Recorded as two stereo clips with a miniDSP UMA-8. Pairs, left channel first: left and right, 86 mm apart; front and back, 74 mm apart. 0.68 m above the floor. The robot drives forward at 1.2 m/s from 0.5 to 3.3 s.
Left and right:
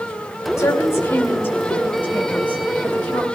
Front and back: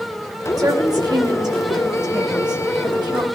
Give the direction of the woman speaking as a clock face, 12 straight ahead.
7 o'clock.